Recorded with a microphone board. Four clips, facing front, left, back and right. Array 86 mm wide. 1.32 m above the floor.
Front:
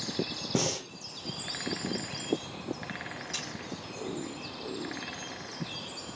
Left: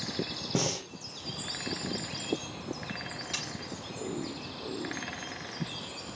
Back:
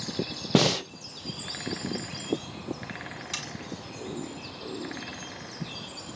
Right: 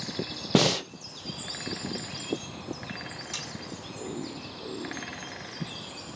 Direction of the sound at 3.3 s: 165° left.